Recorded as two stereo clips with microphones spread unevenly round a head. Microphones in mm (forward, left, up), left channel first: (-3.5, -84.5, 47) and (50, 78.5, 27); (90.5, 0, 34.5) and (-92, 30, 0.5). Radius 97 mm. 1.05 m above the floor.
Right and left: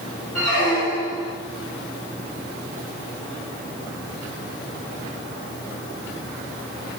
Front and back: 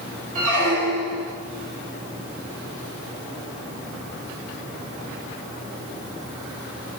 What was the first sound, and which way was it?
A squeak, 135° right.